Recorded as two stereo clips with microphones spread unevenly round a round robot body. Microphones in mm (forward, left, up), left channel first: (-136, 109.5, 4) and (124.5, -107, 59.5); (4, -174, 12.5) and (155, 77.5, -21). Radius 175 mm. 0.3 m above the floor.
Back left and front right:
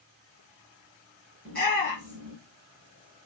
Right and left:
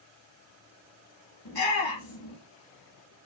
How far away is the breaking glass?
I don't hear breaking glass.